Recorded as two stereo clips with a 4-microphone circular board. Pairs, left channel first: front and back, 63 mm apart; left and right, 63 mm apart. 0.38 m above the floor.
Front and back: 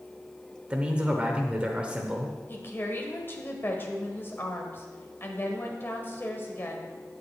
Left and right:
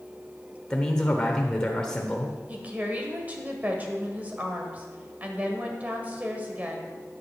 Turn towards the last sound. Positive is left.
turn(degrees=-35)